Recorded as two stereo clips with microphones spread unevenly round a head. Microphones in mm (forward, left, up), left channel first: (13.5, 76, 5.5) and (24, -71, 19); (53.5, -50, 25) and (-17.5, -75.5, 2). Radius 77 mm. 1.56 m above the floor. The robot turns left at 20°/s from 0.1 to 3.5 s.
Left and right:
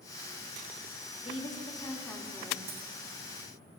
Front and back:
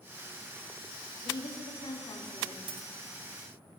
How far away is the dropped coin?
About 2.5 m.